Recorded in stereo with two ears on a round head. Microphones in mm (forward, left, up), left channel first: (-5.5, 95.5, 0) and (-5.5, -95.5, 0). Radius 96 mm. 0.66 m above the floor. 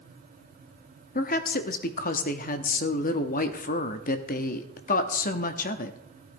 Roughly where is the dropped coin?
No dropped coin in this recording.